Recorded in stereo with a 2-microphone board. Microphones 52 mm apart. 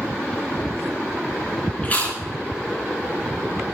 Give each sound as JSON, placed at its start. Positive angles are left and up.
{"t": 1.8, "sound": "chewing", "side_deg": 30, "distance_m": 2.5}